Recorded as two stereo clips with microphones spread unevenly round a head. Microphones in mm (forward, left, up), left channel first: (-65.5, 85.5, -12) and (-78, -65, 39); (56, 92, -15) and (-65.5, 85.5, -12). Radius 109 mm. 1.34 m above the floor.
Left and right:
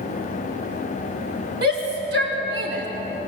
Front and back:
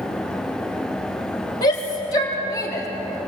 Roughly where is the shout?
Ahead right.